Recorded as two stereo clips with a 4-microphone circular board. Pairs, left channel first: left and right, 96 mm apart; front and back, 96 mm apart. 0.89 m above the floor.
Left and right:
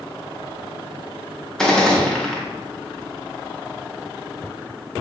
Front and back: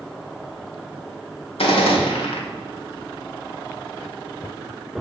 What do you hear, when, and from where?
1.6 s a gunshot: 5° left, 1.7 m